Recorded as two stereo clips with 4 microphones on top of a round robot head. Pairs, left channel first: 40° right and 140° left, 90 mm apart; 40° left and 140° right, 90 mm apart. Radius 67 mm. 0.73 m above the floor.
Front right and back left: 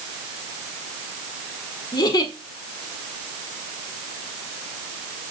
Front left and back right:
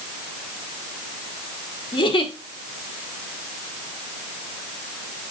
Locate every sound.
1.9 s a giggle: 10° left, 1.7 m